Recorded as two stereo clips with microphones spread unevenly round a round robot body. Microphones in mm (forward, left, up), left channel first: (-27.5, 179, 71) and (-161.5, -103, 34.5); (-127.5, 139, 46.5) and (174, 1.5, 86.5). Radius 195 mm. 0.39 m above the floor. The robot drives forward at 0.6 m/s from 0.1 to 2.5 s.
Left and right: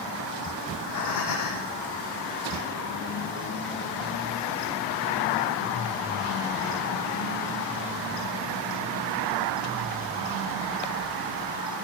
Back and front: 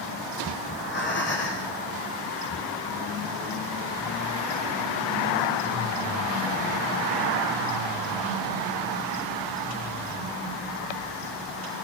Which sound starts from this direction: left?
Breathing, at 0.7 s.